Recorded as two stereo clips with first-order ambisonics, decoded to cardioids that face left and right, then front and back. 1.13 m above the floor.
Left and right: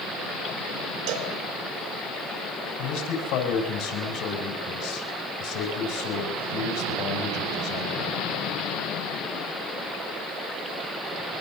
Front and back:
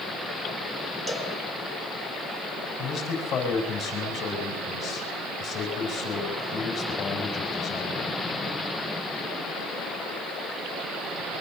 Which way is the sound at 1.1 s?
105° right.